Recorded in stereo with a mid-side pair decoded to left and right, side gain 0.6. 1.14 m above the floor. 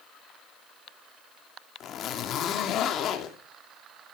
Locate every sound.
1.8 s a zipper: 50° left, 2.5 m